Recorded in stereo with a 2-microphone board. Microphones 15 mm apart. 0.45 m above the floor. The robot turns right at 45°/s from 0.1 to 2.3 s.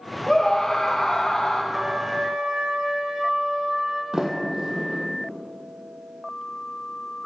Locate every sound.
0.3 s a scream: 5° left, 2 m; by 1.6 s 65° left, 2 m
1.7 s a trumpet: 25° right (ahead or behind), 2.5 m; by 4.0 s 50° right (ahead or behind), 2.5 m
4.1 s a sliding door: 40° right (ahead or behind), 3.5 m